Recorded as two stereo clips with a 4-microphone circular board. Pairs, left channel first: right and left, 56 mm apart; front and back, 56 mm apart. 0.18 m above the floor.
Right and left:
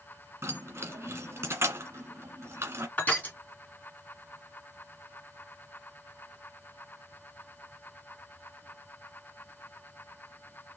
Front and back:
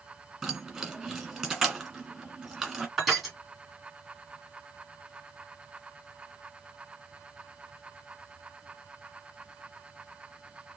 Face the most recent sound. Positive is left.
turn(degrees=-100)